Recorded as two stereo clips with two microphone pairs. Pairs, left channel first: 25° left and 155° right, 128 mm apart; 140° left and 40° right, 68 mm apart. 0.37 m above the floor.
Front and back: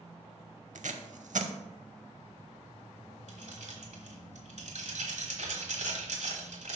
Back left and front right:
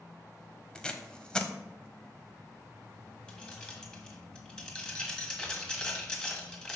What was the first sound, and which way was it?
Tape being pulled, 145° right.